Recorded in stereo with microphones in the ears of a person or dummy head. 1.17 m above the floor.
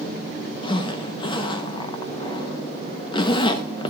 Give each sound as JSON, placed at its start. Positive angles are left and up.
{"t": 0.6, "sound": "a zipper", "side_deg": 30, "distance_m": 0.7}